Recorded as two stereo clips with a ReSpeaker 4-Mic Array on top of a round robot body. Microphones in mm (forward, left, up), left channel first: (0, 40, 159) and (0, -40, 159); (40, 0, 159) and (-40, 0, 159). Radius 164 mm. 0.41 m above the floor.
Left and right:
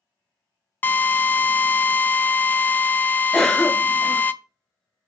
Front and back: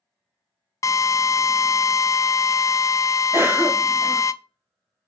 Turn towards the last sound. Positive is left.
turn(degrees=170)